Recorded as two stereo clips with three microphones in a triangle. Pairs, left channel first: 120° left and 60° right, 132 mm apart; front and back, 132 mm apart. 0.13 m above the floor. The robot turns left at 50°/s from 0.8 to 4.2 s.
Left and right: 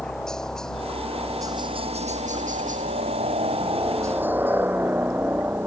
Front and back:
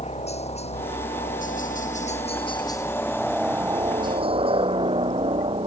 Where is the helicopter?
35° left; by 5.7 s 135° right.